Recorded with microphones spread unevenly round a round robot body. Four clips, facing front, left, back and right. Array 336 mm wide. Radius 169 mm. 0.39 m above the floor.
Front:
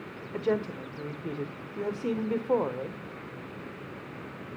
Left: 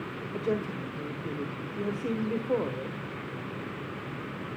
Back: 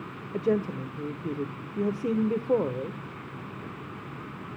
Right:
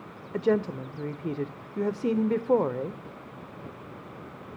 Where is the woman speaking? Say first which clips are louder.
Right 6 dB, back 2 dB; 125° right, 1.4 m.